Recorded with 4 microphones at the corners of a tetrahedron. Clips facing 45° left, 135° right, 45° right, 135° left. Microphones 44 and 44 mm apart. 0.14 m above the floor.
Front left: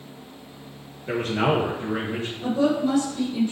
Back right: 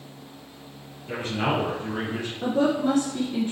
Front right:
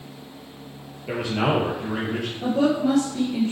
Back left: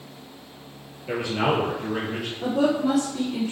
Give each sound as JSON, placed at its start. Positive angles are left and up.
{"t": 1.1, "sound": "a man speaking", "azimuth_deg": 35, "distance_m": 2.0}
{"t": 2.4, "sound": "a woman speaking", "azimuth_deg": -140, "distance_m": 1.7}